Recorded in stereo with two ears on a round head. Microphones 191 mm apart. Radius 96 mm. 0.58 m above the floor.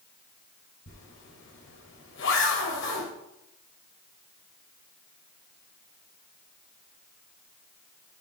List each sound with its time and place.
0.9 s a zipper: 60° left (ahead or behind), 3.5 m